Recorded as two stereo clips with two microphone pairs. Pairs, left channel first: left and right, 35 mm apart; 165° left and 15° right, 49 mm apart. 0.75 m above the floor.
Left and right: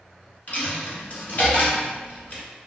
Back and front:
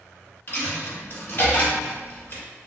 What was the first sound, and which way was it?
A dropped coin, 120° left.